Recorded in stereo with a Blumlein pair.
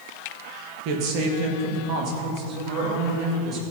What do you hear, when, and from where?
0.8 s a woman speaking: 45° right, 1.8 m; by 3.7 s 30° right, 4 m